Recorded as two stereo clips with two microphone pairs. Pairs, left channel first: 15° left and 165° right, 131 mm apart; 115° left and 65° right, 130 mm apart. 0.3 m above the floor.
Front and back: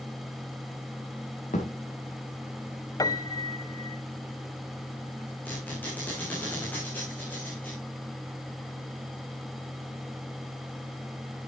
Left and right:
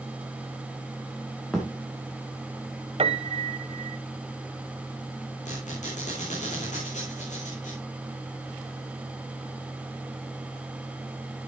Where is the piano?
40° right, 0.7 m.